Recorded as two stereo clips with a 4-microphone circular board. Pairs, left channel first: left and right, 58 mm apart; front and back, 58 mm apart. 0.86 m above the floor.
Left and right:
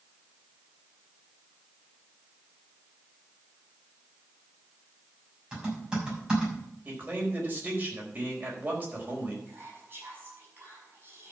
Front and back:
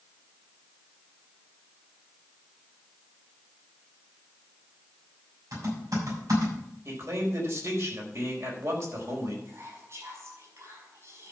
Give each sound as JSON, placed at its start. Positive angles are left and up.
{"t": 5.5, "sound": "typing on a keyboard", "azimuth_deg": -165, "distance_m": 6.0}
{"t": 6.8, "sound": "a man speaking", "azimuth_deg": -150, "distance_m": 4.5}
{"t": 9.4, "sound": "whispering", "azimuth_deg": -140, "distance_m": 6.0}